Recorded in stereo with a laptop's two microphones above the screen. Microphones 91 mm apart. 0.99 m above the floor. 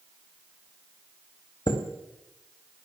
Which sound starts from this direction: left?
A chime, at 1.7 s.